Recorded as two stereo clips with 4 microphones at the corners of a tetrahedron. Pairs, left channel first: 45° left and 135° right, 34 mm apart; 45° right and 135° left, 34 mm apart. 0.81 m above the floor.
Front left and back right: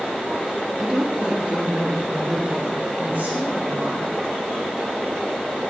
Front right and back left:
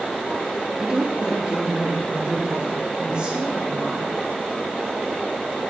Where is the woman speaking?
150° left, 1.1 m; by 4.1 s 170° right, 6 m.